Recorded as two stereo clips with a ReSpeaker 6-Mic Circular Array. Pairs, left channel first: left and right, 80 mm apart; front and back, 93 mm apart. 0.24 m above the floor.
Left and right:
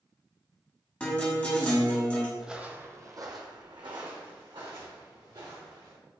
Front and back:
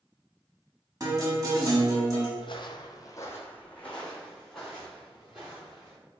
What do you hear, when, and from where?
1.0 s a guitar: 155° left, 1.1 m
2.4 s footsteps: 5° right, 0.5 m; by 6.0 s 95° right, 1.9 m